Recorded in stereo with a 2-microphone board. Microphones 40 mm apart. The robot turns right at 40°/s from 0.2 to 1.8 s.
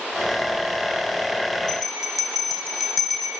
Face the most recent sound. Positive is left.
turn(degrees=0)  # may be behind; listen again after turning